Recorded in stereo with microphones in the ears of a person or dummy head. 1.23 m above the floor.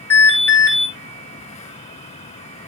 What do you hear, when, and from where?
0.1 s an alarm: 15° left (ahead or behind), 5 m